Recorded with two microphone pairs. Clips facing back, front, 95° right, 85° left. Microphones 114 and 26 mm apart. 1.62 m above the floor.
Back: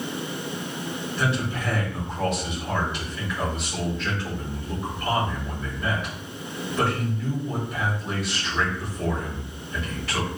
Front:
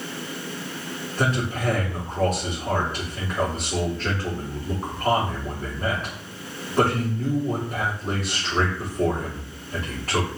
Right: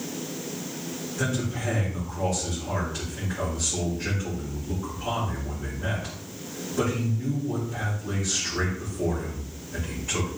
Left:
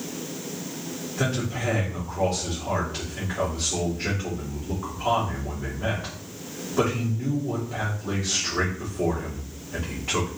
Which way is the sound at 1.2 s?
40° left.